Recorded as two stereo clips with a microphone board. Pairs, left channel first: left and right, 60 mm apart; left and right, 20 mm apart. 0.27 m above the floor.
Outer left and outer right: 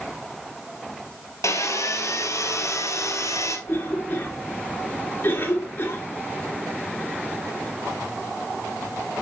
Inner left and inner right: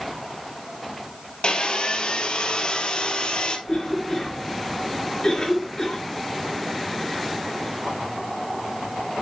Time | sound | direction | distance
1.4 | sawing | 55° left (ahead or behind) | 1.8 m
3.7 | a cough | 35° left (ahead or behind) | 4.5 m